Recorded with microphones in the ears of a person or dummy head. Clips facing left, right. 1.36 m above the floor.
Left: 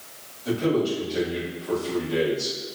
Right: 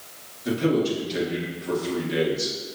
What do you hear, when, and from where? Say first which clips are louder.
0.5 s a man speaking: right 1 dB; 25° right (ahead or behind), 1.6 m